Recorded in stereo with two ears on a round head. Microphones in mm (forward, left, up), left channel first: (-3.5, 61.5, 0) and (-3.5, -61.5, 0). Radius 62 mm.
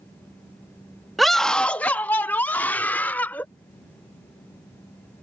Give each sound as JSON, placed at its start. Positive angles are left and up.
{"t": 1.2, "sound": "a scream", "side_deg": 0}